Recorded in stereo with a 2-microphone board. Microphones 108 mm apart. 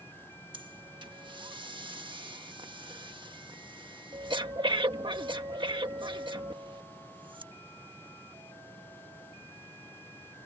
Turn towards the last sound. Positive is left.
turn(degrees=-50)  # may be behind; listen again after turning